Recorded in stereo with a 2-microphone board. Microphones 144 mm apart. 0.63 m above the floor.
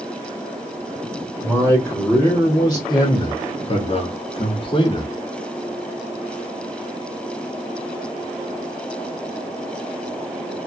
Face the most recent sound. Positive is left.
turn(degrees=30)  # may be behind; listen again after turning